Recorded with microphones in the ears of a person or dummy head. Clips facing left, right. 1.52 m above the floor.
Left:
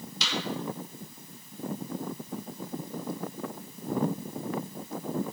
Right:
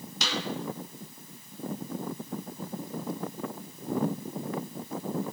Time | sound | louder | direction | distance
0.2 | a snare drum | right 1 dB | 40° right (ahead or behind) | 2.5 m